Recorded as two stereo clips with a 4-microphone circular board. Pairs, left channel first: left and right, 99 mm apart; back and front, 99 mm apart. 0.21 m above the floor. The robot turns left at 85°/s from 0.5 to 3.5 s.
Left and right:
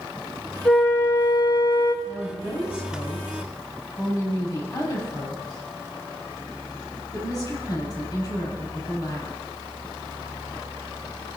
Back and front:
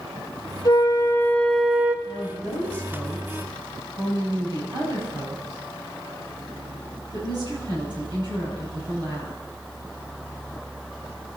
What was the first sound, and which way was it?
A flute, 170° left.